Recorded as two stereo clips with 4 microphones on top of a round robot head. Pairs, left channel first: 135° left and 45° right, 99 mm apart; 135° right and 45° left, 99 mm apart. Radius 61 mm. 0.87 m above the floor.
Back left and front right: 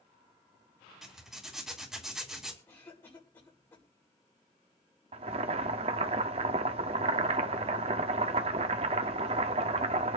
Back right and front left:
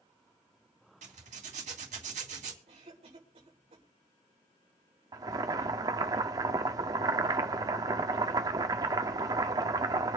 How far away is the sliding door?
I don't hear a sliding door.